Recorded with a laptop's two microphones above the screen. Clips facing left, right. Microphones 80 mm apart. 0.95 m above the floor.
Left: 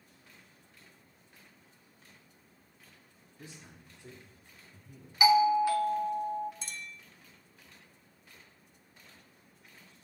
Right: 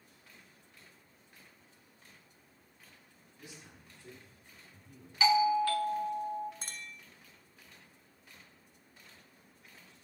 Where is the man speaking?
35° left (ahead or behind), 1.7 m; by 5.1 s centre (ahead or behind), 2.5 m.